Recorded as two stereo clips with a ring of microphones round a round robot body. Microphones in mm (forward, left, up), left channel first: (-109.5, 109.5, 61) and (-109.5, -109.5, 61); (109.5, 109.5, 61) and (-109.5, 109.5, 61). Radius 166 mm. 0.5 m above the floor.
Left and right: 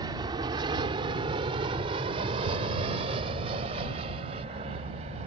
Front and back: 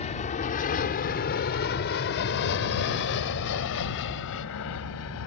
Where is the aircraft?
30° right; by 5.3 s 20° right.